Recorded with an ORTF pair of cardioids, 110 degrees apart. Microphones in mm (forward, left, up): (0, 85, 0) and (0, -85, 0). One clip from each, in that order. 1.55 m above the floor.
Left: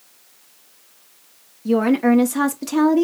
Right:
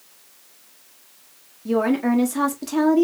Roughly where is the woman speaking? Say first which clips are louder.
Left 3 dB; ahead.